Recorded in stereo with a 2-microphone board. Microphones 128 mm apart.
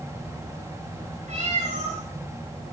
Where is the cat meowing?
70° right (ahead or behind), 5.5 m.